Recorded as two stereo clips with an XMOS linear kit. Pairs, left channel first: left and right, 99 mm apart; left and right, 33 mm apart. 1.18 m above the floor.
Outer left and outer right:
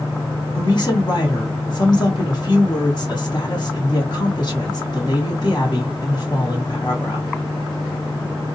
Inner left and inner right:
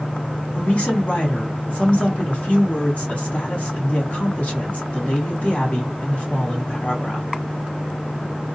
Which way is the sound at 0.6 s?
45° left (ahead or behind).